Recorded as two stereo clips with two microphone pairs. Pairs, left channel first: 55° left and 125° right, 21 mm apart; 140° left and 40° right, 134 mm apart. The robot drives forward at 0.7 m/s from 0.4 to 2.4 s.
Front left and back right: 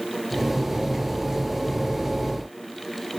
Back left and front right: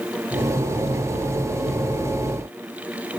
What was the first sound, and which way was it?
Only background noise.